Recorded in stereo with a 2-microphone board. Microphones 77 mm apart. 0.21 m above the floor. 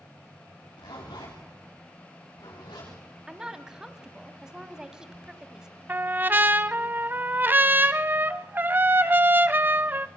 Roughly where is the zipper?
Left.